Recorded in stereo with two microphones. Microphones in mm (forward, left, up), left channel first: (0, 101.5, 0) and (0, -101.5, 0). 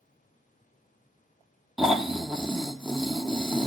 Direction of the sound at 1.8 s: Centre (ahead or behind).